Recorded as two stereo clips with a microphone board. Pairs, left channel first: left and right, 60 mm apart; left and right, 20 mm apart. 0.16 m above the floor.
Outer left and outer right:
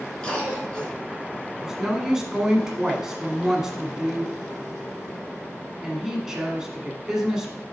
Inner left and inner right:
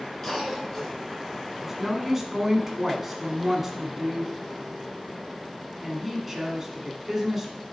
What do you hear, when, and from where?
0.2 s a cough: 15° left (ahead or behind), 2.5 m
1.6 s a woman speaking: 10° right (ahead or behind), 1.3 m